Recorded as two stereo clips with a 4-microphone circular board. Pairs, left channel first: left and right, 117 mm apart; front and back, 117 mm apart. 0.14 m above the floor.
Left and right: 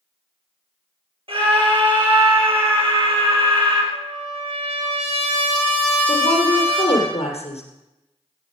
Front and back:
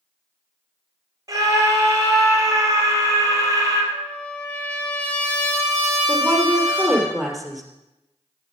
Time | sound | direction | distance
1.3 | a scream | 125° right | 4 m
3.9 | a trumpet | 75° right | 3 m
6.1 | a woman speaking | 90° left | 2.5 m